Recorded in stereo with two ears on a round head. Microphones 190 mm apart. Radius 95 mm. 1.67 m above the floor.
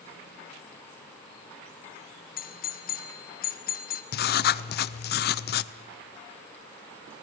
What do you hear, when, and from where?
2.4 s a doorbell: 45° left (ahead or behind), 1.4 m
4.1 s writing: 45° left (ahead or behind), 0.6 m